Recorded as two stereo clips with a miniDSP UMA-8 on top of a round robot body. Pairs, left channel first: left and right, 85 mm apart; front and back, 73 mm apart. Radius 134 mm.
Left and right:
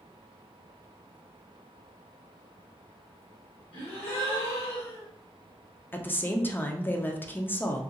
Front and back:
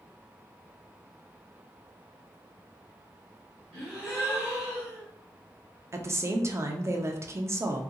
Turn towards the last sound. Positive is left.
turn(degrees=150)